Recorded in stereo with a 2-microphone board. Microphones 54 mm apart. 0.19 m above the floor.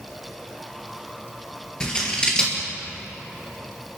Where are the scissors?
15° left (ahead or behind), 4 m.